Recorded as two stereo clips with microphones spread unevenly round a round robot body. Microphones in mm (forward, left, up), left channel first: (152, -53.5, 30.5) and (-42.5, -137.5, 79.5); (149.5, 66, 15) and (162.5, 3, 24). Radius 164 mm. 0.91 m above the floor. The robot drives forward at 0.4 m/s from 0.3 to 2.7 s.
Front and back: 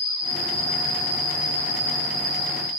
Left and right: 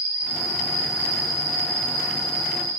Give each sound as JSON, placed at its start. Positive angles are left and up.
{"t": 0.0, "sound": "an insect", "azimuth_deg": -55, "distance_m": 0.8}